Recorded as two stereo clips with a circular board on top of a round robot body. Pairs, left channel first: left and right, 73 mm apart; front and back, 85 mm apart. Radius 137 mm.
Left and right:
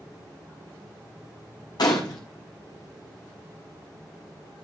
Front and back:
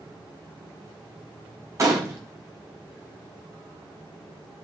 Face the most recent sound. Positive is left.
turn(degrees=125)